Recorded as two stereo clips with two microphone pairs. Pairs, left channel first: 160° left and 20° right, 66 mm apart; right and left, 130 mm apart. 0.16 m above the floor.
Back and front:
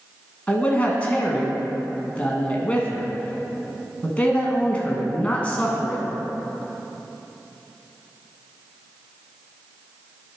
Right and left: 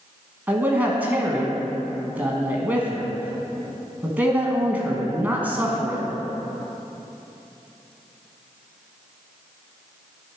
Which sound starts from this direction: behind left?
A man speaking, at 0.5 s.